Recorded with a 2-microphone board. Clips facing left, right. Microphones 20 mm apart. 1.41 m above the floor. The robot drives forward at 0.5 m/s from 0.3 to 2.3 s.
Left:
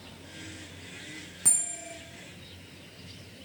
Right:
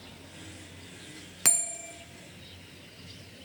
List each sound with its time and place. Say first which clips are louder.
1.4 s a bell: right 2 dB; 60° right (ahead or behind), 0.9 m; by 1.9 s 50° right (ahead or behind), 1.0 m